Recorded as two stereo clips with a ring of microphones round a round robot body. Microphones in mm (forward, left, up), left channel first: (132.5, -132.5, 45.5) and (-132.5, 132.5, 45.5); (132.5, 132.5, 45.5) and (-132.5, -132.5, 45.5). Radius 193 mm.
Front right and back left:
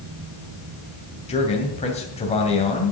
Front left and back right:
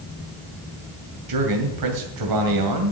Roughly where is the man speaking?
Behind right.